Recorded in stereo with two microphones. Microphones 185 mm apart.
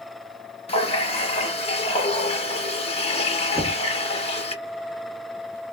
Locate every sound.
0.7 s a running tap: 35° left (ahead or behind), 1.2 m
3.5 s knocking: 25° right (ahead or behind), 1.7 m